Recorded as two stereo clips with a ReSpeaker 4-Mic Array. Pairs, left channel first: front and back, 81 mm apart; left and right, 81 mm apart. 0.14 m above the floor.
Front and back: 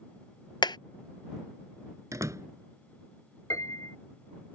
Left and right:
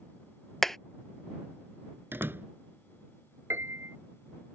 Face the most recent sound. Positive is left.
turn(degrees=-40)